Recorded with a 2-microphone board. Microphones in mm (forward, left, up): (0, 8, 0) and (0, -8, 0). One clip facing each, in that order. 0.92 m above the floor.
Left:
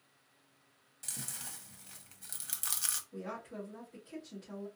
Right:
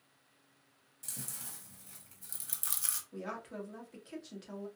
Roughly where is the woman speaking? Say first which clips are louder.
Right 1 dB; right.